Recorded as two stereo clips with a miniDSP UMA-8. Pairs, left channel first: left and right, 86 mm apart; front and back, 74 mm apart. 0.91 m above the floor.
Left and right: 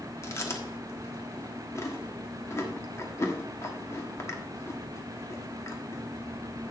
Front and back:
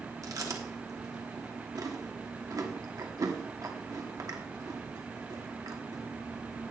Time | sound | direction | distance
0.2 | chewing | 145° left | 1.3 m